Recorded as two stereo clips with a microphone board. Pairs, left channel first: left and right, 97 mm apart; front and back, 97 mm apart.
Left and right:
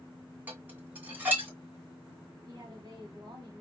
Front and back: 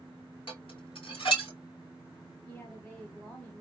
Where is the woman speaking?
70° right, 1.7 m.